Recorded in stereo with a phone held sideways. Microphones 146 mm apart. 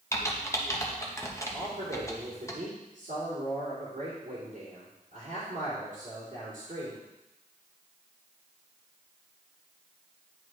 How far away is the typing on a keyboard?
About 0.9 m.